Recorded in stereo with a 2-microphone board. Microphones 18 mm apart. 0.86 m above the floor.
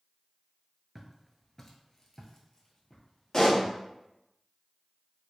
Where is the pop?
40° left (ahead or behind), 1.6 m.